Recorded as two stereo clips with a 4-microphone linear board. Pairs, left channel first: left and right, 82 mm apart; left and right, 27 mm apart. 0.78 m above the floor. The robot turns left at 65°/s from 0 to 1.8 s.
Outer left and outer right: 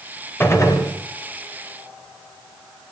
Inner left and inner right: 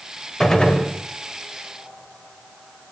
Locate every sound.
0.4 s a gunshot: 25° left (ahead or behind), 4 m; by 0.8 s 55° left (ahead or behind), 4 m